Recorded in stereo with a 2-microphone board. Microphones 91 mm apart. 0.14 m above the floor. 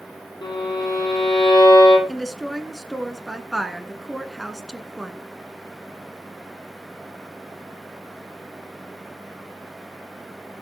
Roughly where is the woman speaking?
Centre.